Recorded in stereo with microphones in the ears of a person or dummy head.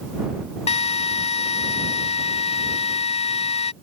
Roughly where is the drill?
Left.